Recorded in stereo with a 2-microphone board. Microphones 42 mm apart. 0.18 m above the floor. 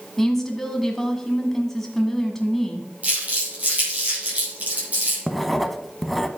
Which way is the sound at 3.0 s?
35° right (ahead or behind).